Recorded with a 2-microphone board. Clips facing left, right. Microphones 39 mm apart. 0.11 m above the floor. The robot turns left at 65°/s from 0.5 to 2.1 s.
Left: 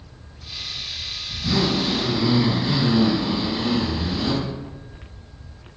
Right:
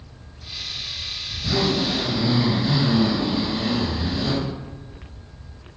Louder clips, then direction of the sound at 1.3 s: Even; 105° left.